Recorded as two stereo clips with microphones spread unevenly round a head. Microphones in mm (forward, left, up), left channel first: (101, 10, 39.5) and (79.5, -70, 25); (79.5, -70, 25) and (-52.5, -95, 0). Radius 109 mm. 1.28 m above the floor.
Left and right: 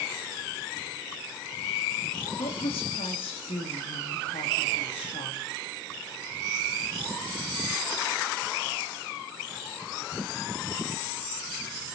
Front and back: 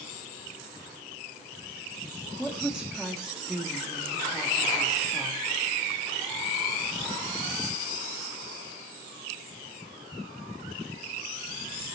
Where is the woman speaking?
105° left, 3 m.